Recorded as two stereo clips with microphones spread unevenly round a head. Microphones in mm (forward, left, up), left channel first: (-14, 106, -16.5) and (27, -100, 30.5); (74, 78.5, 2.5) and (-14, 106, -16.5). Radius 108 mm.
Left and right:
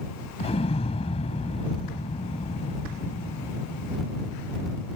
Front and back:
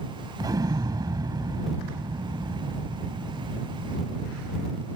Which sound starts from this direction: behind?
An explosion, at 0.4 s.